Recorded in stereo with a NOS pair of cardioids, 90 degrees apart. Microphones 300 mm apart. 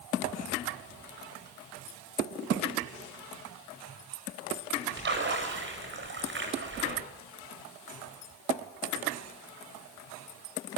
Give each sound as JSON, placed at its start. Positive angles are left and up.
{"t": 5.0, "sound": "a splash", "azimuth_deg": -40, "distance_m": 8.5}